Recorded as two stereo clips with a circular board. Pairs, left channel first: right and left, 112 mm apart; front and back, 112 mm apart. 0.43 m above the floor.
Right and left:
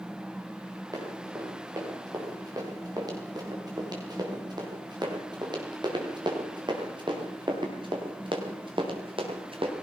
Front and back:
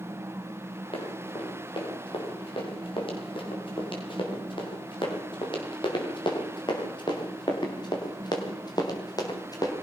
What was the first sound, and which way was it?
Running footsteps, 35° left.